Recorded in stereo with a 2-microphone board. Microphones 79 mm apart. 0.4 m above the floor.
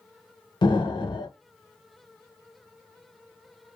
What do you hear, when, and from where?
0.6 s an explosion: 70° left (ahead or behind), 0.6 m